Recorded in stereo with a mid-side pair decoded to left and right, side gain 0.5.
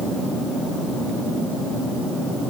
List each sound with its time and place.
Only background noise.